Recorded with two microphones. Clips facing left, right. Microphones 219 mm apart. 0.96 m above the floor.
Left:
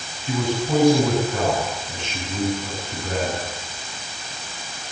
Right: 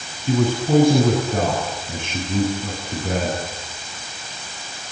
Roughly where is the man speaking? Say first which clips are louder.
Right 4 dB; right.